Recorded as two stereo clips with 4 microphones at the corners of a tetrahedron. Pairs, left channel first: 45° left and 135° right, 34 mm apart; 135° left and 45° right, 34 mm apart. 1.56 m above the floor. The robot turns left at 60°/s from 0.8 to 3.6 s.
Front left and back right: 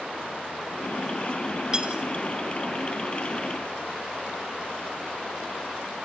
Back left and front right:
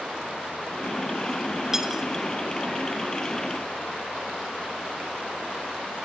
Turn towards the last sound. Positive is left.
turn(degrees=140)